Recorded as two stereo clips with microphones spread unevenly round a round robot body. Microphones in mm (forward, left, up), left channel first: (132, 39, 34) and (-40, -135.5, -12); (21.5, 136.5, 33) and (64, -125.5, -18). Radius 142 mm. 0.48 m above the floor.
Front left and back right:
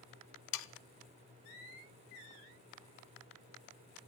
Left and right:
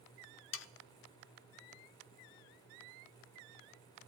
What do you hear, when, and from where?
0.5 s sawing: 55° left, 0.6 m